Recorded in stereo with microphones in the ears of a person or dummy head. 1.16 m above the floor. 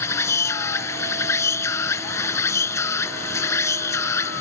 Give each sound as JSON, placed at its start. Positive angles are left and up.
{"t": 0.0, "sound": "an insect", "side_deg": 15}